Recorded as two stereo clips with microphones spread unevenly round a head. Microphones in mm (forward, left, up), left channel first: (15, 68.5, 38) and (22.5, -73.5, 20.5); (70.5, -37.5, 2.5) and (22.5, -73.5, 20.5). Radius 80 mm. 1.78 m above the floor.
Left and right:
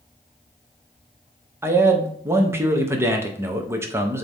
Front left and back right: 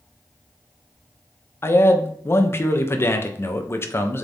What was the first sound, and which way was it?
A man speaking, 15° right.